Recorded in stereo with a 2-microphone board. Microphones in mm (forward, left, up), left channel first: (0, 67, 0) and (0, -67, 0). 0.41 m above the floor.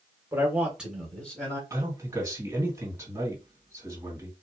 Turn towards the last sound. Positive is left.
turn(degrees=-20)  # may be behind; listen again after turning